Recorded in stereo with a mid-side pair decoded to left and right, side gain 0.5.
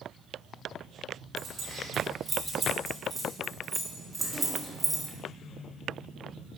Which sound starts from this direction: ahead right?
Keys jangling, at 1.4 s.